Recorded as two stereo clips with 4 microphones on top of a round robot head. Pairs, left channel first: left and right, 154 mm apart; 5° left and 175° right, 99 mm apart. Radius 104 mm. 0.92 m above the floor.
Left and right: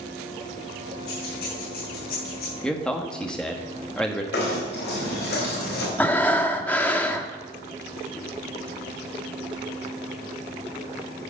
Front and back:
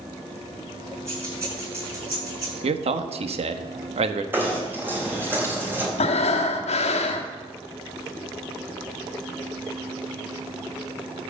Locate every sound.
1.1 s keys jangling: 120° left, 6.5 m; by 2.5 s 130° left, 7.5 m
2.6 s a man speaking: 175° left, 1.1 m
4.3 s knocking: 115° left, 4 m
6.0 s breathing: 10° left, 1.3 m